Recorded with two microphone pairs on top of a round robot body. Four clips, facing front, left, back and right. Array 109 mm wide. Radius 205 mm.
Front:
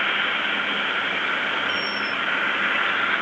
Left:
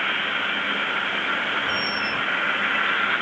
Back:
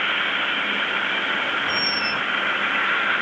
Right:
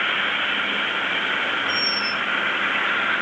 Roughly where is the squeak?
Behind left.